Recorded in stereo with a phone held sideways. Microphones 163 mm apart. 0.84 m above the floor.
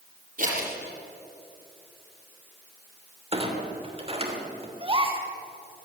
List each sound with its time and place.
0.4 s scissors: 55° right (ahead or behind), 7.5 m
3.3 s a clunk: 40° right (ahead or behind), 3 m
4.8 s a gasp: 35° right (ahead or behind), 2.5 m